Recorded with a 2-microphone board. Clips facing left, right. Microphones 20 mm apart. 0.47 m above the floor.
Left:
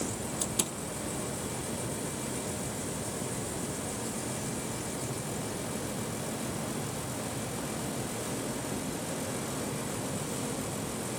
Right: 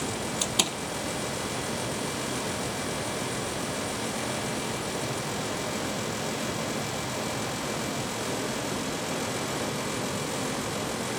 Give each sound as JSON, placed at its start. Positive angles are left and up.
{"t": 0.4, "sound": "a door slam", "side_deg": -40}